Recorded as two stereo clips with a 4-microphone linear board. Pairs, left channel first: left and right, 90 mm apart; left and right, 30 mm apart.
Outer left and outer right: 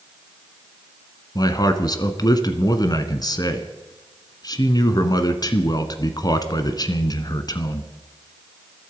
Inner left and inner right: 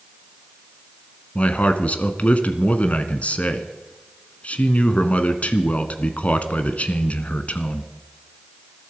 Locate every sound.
1.4 s a man speaking: 45° left (ahead or behind), 1.4 m